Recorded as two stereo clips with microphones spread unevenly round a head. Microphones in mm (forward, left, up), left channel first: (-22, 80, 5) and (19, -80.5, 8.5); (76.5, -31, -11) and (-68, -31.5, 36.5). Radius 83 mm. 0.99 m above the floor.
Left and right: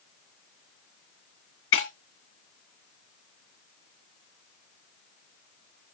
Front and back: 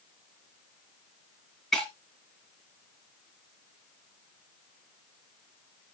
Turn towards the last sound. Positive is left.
turn(degrees=95)